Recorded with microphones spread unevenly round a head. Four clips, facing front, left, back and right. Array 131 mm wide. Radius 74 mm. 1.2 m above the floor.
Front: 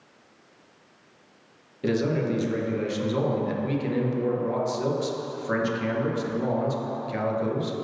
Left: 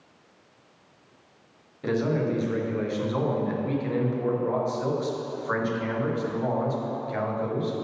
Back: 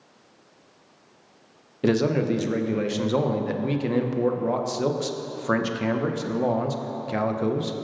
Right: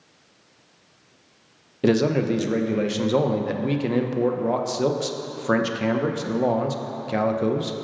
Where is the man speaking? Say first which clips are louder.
Right 5 dB, back 3 dB; 115° right, 0.8 m.